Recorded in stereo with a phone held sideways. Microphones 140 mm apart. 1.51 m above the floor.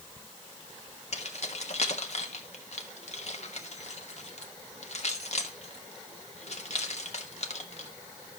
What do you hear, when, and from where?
1.1 s keys jangling: 50° left (ahead or behind), 1.3 m